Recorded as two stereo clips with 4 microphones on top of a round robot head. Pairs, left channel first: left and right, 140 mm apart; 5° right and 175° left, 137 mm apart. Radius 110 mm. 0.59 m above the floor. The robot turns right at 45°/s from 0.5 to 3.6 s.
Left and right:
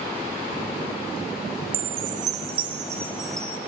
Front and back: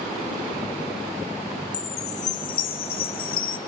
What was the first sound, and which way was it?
A chime, 70° right.